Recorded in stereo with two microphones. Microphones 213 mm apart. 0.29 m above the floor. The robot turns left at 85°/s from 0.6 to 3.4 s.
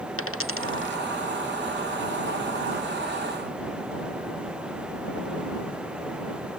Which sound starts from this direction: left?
A dropped coin, at 0.2 s.